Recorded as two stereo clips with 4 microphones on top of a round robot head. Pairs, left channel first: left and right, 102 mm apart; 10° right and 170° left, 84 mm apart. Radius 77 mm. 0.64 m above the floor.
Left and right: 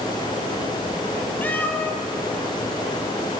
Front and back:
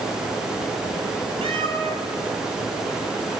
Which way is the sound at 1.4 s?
160° left.